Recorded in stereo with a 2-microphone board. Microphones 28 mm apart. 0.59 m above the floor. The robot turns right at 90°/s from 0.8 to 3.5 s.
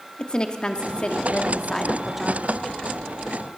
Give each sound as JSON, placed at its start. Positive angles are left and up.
{"t": 0.2, "sound": "a woman speaking", "azimuth_deg": 65, "distance_m": 0.9}